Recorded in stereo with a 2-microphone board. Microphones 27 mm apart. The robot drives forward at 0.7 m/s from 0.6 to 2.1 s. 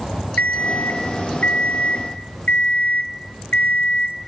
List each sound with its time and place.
0.4 s an alarm clock: 85° left, 2 m; by 4.2 s 60° left (ahead or behind), 2.5 m